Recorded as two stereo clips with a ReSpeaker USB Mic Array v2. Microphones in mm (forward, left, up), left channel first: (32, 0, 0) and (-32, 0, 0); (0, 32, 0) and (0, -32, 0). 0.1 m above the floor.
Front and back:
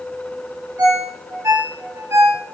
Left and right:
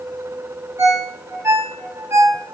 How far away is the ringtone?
About 5 m.